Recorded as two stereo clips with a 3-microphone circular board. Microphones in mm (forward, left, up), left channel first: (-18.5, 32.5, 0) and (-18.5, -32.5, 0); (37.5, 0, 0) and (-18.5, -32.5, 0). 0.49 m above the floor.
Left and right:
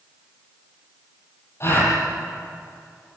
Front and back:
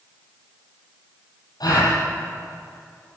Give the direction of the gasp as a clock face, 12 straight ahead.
11 o'clock.